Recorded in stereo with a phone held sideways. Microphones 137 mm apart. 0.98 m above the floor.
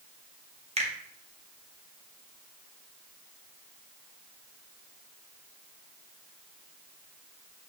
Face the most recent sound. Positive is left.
turn(degrees=-45)  # may be behind; listen again after turning